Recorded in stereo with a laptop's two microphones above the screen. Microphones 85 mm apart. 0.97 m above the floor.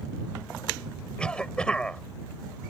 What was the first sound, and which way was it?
A cough, 10° left (ahead or behind).